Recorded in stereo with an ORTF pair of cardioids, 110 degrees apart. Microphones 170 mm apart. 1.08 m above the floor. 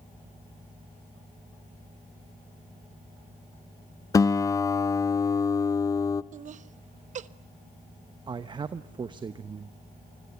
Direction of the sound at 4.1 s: 20° left.